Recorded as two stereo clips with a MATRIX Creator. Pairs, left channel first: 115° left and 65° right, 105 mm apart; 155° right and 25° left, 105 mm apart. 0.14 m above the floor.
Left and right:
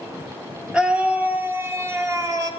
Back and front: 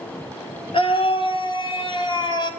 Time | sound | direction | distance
0.7 | a scream | 150° right | 2.5 m